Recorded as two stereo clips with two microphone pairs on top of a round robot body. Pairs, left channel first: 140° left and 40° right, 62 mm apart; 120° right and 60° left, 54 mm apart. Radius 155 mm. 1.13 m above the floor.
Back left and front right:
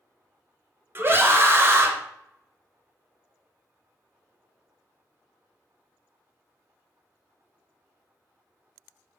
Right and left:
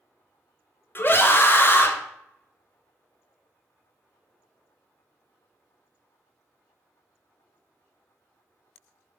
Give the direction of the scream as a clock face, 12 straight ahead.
3 o'clock.